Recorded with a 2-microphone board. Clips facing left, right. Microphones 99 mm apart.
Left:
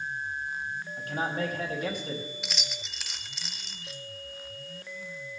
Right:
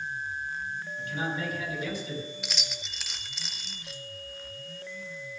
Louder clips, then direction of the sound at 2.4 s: Even; centre (ahead or behind).